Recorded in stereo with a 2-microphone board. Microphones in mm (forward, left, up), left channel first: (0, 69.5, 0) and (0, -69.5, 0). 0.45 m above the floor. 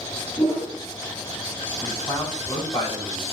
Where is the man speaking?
35° left (ahead or behind), 3.5 m.